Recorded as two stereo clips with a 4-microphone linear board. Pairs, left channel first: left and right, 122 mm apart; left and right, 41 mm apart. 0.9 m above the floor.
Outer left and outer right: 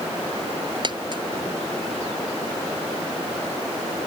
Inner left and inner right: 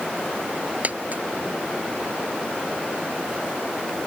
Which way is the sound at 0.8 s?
40° right (ahead or behind).